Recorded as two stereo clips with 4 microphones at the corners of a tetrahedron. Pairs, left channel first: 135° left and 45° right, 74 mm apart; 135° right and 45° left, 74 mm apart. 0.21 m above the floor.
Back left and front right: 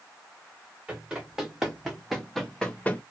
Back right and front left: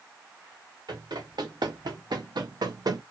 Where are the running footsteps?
35° left, 1.5 m; by 3.0 s 70° left, 0.5 m.